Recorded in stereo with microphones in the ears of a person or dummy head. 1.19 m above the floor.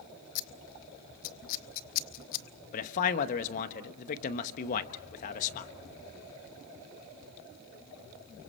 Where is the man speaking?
45° left (ahead or behind), 1.1 m.